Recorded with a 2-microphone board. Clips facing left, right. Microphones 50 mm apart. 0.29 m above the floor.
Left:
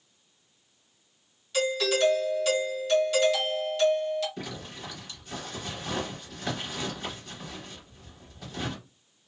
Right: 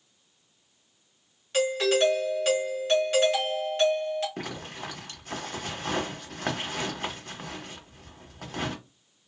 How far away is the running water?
I don't hear running water.